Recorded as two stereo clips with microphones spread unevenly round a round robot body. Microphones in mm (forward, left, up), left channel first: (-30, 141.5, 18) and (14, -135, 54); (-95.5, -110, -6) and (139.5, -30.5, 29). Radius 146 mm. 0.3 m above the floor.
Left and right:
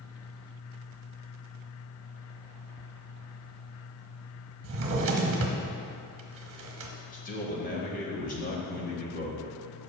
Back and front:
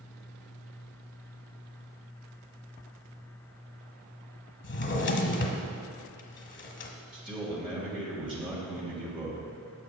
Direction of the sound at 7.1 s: 90° left.